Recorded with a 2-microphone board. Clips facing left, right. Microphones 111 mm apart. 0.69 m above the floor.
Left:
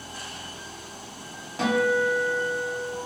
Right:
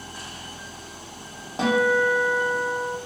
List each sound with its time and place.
1.6 s a guitar: 30° right (ahead or behind), 0.7 m